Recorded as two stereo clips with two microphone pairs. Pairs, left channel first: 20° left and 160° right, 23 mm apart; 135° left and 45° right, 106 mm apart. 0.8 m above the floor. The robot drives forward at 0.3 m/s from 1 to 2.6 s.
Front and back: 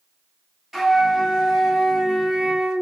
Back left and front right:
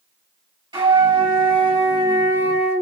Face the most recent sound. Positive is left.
turn(degrees=-100)